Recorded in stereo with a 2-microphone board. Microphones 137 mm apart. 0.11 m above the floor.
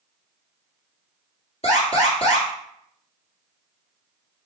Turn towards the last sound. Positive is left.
turn(degrees=45)  # may be behind; listen again after turning